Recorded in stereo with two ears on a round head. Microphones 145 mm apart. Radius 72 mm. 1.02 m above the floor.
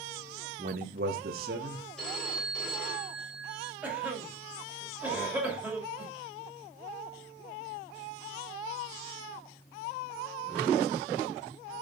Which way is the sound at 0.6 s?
50° right (ahead or behind).